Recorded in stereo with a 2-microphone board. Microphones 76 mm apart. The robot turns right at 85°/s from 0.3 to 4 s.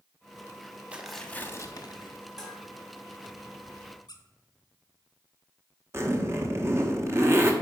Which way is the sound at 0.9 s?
15° right.